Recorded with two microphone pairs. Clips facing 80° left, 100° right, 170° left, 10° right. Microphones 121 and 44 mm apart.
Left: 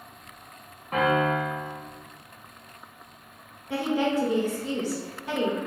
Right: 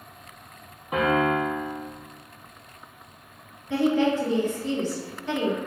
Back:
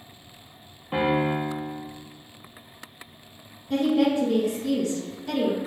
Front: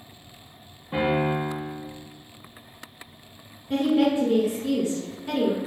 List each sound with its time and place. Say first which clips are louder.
0.9 s a piano: right 1 dB, even; straight behind, 1.2 m
3.7 s a woman speaking: right 3 dB, even; 20° left, 1.3 m